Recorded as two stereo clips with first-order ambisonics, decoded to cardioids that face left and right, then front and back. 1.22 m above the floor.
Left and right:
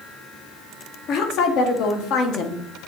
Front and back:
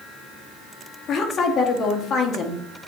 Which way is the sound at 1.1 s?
60° left.